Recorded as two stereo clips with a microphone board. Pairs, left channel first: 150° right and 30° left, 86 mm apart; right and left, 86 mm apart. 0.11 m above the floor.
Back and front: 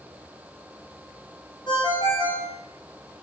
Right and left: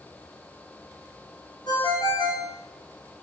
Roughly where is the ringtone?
Behind right.